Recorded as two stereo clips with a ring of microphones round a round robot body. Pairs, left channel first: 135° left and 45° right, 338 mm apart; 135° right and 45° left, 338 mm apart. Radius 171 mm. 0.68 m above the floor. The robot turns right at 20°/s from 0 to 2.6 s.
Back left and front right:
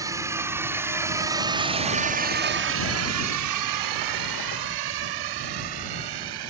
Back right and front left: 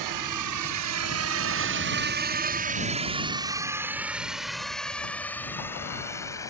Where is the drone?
35° left; by 6.5 s 55° right.